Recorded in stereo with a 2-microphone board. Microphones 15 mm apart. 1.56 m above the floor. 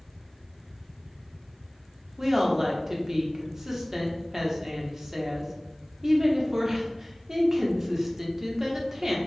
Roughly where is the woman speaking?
Right.